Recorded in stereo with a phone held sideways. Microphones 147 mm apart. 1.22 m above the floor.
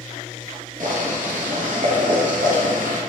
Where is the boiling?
65° right (ahead or behind), 0.9 m.